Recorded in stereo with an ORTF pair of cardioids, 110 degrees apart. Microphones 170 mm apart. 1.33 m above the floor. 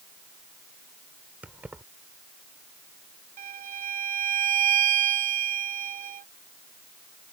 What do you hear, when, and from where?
1.4 s keys jangling: 10° right
3.4 s a violin: 55° right